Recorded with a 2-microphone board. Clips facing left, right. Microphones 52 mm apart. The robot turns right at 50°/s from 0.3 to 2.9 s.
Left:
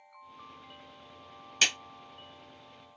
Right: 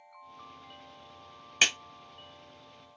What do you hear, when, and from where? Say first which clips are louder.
1.6 s a clap: right 2 dB; 30° right (ahead or behind), 0.9 m; by 1.8 s 25° right (ahead or behind), 0.9 m